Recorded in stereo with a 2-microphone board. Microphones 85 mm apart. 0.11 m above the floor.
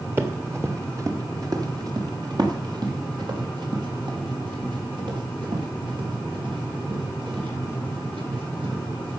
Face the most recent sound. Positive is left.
turn(degrees=-80)